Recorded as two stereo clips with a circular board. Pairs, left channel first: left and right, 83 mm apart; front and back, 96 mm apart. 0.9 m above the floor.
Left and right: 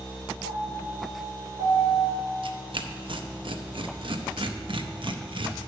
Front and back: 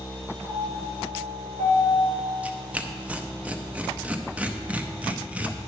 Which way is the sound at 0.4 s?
155° right.